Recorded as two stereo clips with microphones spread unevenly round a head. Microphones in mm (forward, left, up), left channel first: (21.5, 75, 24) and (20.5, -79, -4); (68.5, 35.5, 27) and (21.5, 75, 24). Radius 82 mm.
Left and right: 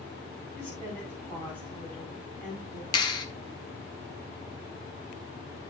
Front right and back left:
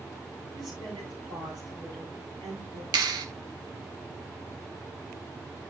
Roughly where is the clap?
Behind left.